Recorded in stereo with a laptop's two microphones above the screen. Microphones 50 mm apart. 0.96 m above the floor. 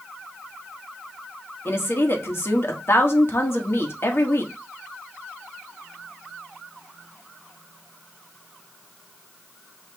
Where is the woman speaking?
55° left (ahead or behind), 1.5 m.